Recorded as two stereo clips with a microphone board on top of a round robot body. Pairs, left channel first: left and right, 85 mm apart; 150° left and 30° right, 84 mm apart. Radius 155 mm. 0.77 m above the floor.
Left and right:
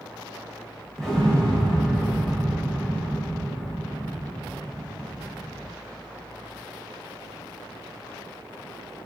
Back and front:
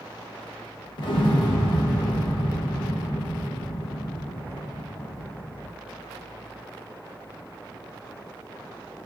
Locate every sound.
1.0 s an explosion: 175° left, 0.6 m